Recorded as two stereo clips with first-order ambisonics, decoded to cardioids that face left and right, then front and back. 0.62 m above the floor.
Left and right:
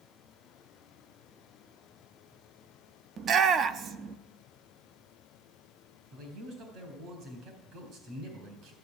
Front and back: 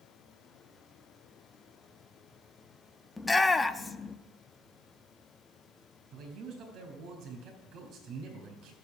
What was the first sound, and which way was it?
A shout, 75° right.